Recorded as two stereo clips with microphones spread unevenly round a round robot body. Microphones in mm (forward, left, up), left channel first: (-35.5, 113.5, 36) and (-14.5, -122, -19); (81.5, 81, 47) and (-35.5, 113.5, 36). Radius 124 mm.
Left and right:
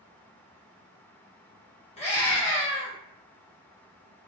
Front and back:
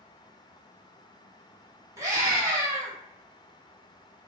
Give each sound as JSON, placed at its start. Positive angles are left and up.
{"t": 2.0, "sound": "a scream", "azimuth_deg": 160, "distance_m": 1.2}